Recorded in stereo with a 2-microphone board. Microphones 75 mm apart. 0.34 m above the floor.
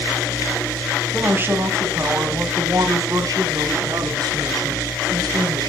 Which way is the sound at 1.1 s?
25° right (ahead or behind).